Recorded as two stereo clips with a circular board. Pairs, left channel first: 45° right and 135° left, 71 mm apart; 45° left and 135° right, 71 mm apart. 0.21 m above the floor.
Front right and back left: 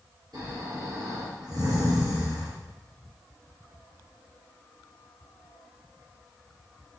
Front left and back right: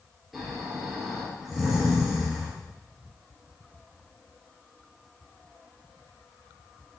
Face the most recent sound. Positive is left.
turn(degrees=140)